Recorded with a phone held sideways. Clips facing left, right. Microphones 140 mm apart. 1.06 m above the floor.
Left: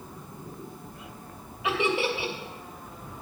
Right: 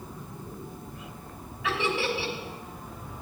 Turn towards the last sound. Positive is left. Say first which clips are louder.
# left 2 dB
turn(degrees=20)  # may be behind; listen again after turning